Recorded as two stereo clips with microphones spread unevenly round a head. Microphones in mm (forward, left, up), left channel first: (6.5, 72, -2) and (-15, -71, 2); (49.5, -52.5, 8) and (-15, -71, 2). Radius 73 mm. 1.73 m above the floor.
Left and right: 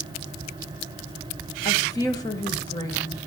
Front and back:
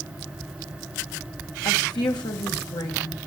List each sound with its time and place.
1.6 s a woman speaking: 15° left, 1.8 m